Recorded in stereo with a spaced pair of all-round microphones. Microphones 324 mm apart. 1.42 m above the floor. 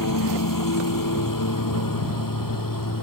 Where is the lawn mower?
80° left.